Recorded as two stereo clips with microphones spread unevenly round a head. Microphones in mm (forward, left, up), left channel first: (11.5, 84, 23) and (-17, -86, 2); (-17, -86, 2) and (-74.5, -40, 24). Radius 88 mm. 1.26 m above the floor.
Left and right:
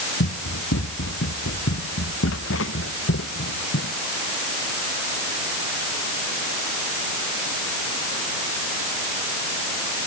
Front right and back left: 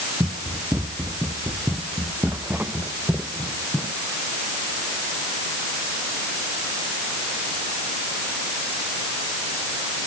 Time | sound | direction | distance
0.2 | running footsteps | 65° left | ?